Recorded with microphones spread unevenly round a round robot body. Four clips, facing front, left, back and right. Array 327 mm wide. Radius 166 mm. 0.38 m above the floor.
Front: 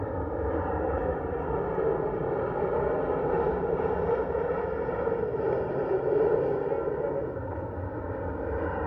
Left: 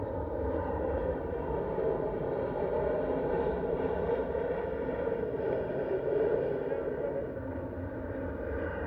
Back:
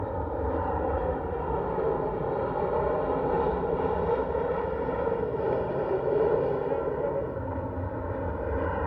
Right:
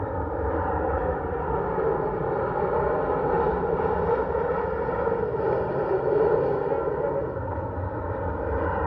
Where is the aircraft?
65° right; by 8.9 s 85° right.